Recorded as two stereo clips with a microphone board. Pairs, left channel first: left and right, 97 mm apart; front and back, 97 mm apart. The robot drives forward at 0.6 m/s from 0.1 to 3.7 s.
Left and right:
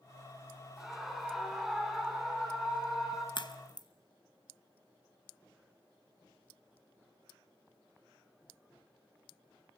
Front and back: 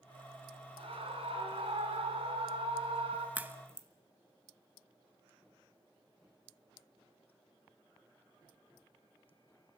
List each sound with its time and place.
0.8 s a scream: 175° right, 3 m; by 3.2 s straight behind, 4.5 m
3.4 s a crack: 110° left, 1.0 m; by 3.9 s 120° left, 1.1 m